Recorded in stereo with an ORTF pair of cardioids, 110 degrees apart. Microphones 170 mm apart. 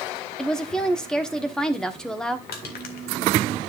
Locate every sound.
0.4 s a woman speaking: 5° left, 1.1 m
2.5 s crushing: 65° left, 1.9 m